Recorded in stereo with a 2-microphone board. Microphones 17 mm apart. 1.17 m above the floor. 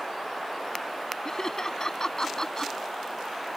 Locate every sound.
1.2 s laughter: 35° left (ahead or behind)